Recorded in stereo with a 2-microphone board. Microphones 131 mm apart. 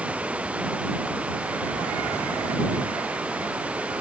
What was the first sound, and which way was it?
Running water, 10° right (ahead or behind).